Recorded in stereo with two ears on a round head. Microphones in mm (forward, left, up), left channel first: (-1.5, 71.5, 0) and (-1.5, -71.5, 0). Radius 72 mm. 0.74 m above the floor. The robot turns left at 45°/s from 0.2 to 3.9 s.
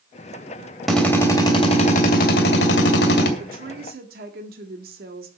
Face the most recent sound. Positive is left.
turn(degrees=-65)  # may be behind; listen again after turning